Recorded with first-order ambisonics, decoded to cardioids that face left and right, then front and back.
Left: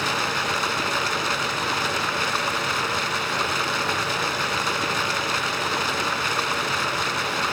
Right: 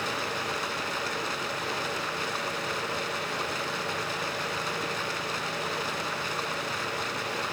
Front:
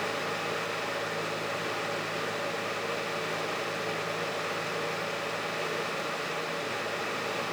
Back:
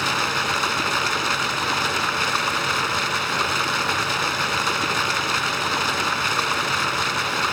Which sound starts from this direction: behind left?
Running water, at 0.0 s.